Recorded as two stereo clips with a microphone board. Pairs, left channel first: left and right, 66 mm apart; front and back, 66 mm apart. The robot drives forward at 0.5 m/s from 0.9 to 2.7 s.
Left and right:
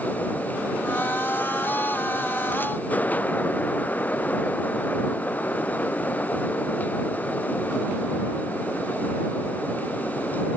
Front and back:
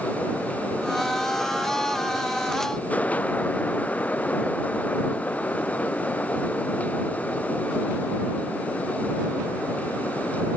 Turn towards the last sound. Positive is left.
No sound to turn to.